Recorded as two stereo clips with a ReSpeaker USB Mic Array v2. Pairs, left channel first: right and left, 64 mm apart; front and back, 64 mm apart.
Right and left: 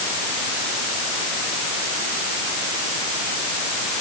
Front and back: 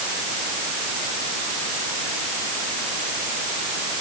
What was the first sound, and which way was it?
Only background noise.